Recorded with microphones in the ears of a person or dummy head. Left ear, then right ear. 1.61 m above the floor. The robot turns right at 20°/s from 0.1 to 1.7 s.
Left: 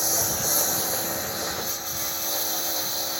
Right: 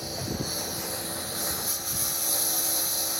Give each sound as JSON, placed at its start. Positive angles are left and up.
{"t": 0.0, "sound": "a lawn mower", "side_deg": 50}